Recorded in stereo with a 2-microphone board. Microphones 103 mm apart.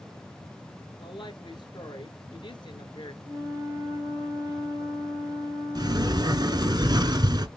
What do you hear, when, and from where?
1.0 s a woman speaking: 50° left (ahead or behind), 2.0 m
3.2 s a flute: 45° right (ahead or behind), 4 m
5.8 s a sliding door: 40° right (ahead or behind), 1.0 m